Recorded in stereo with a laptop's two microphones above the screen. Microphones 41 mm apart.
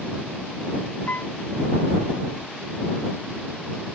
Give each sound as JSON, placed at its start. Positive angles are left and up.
{"t": 1.1, "sound": "a piano", "side_deg": 50}